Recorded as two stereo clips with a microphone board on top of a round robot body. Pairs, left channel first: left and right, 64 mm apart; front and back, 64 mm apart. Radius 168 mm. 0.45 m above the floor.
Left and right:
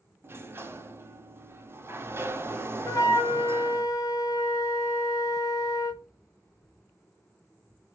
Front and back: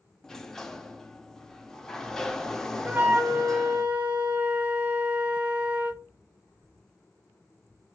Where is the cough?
I don't hear a cough.